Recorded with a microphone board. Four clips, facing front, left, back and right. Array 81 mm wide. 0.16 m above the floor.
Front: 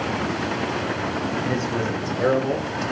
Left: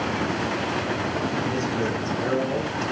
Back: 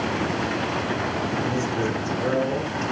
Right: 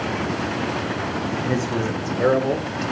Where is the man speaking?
60° right, 8.5 m; by 2.9 s 50° right, 7 m.